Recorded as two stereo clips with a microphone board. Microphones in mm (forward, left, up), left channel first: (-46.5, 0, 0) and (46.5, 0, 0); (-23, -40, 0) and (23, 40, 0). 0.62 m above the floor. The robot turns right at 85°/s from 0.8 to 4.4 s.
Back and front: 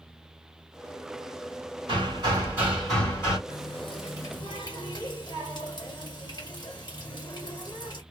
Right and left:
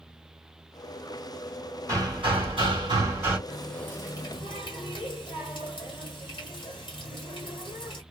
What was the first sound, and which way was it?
Hammering, straight ahead.